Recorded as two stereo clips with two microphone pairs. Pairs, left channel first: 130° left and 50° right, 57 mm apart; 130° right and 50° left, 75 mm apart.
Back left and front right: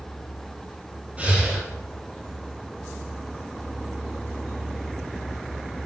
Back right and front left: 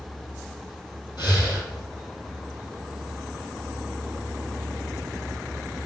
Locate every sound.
1.2 s breathing: 120° right, 2.5 m